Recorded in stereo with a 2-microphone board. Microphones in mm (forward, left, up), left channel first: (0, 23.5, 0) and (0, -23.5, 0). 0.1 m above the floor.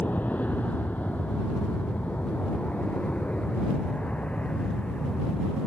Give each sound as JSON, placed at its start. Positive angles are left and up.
{"t": 0.0, "sound": "an aircraft", "side_deg": 35}